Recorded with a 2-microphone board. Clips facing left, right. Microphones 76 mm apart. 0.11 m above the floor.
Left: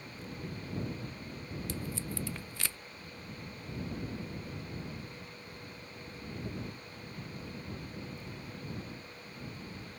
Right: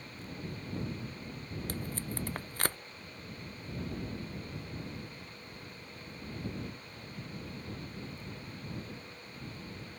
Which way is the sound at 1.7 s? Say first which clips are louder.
Even; 45° right (ahead or behind).